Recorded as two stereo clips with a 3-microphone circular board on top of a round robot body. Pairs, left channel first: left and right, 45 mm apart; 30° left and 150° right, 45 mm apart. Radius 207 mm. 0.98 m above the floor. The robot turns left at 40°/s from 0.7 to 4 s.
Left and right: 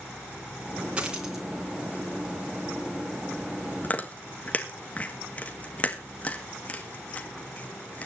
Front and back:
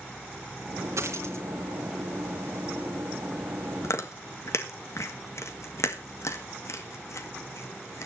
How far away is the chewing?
About 2 m.